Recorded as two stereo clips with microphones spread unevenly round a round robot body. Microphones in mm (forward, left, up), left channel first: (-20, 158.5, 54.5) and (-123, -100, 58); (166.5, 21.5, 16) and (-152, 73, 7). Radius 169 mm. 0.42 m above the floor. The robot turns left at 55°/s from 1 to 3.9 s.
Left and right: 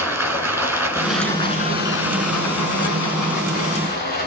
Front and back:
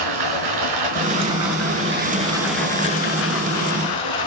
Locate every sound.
0.0 s running water: 165° left, 4 m; by 4.3 s 5° left, 4 m